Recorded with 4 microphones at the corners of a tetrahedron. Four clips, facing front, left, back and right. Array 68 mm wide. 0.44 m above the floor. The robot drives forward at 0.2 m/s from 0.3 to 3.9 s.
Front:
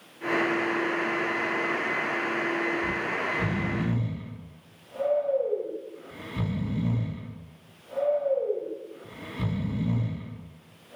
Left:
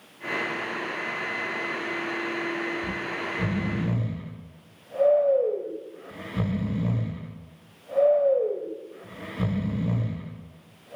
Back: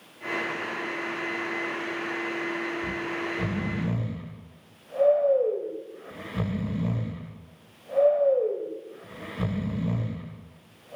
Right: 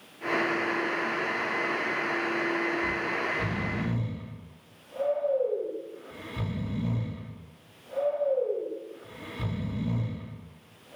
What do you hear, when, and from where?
2.8 s snoring: 125° left, 0.7 m; by 11.0 s 135° left, 0.9 m